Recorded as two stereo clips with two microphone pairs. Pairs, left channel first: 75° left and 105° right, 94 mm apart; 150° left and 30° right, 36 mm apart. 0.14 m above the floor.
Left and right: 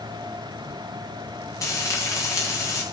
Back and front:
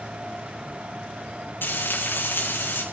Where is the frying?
135° left, 5 m.